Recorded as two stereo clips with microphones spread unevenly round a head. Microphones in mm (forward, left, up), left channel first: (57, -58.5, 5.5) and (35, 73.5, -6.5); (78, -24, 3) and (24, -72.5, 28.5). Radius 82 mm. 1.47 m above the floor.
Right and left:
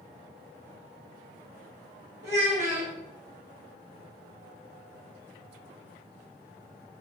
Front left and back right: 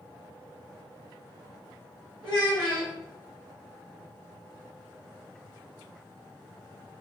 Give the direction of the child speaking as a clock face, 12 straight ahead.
7 o'clock.